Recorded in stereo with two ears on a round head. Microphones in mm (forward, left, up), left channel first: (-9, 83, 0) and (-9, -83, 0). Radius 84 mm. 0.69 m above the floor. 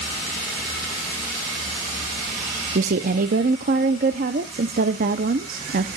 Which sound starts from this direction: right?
A woman speaking, at 2.8 s.